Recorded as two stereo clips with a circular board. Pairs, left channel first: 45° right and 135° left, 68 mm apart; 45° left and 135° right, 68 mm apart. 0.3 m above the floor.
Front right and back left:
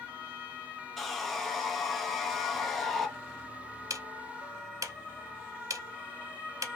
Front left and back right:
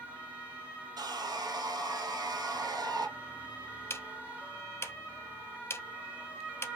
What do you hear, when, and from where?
1.0 s sawing: 130° right, 0.8 m
3.9 s ticking: 95° left, 0.5 m